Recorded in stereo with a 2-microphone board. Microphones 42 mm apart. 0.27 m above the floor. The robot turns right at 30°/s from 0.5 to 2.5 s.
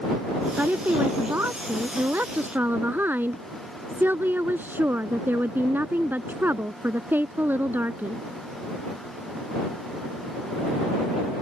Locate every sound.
0.6 s a woman speaking: 120° right; by 8.2 s 65° right